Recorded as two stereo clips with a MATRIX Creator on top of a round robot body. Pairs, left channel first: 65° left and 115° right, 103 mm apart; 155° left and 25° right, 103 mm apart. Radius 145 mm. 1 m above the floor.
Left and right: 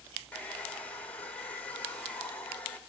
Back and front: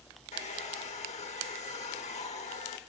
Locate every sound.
0.3 s a hair dryer: 145° left, 1.1 m